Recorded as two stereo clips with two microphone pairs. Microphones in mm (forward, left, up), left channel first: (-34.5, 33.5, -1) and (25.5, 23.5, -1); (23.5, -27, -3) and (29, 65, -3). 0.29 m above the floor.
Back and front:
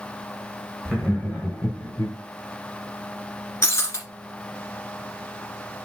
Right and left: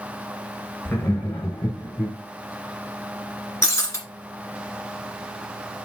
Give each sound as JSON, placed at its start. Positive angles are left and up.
{"t": 0.8, "sound": "laughter", "azimuth_deg": -115, "distance_m": 1.6}
{"t": 3.6, "sound": "breaking glass", "azimuth_deg": -150, "distance_m": 2.0}